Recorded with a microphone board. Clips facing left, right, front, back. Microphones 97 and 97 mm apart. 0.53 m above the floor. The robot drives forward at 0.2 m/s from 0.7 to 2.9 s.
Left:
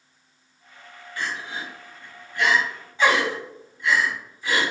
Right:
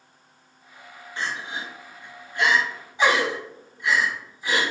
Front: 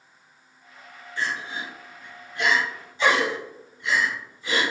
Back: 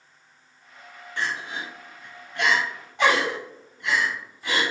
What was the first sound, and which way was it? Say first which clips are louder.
Crying: even, even; 155° right.